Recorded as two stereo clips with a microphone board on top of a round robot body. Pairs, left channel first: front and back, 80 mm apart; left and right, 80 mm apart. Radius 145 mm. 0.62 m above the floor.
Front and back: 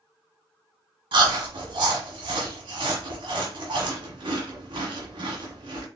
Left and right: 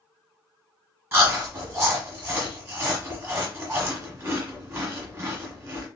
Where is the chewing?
150° right, 1.0 m.